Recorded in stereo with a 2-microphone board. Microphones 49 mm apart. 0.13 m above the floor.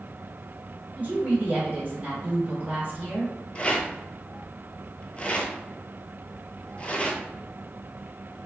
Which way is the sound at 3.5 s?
25° left (ahead or behind).